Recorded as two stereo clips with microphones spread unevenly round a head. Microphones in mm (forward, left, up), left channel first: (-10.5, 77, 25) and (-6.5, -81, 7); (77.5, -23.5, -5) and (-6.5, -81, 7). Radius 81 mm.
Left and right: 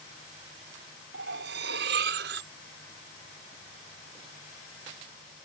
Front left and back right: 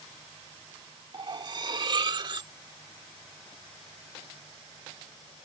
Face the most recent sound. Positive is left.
turn(degrees=-110)